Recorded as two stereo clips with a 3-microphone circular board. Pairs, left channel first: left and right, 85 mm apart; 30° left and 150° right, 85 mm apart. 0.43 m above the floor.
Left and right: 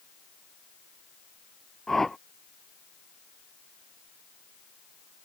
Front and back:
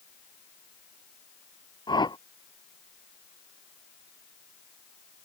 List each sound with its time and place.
1.9 s a whoosh: 5° left